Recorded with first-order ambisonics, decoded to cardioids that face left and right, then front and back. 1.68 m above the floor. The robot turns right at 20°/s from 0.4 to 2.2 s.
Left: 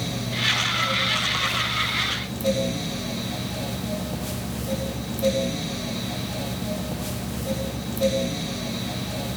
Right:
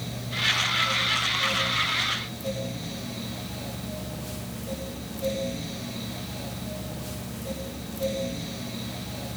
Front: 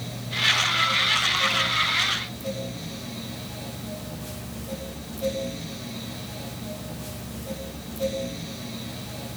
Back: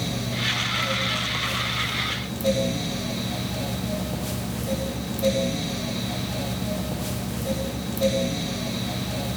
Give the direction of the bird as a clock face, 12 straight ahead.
No bird in this recording.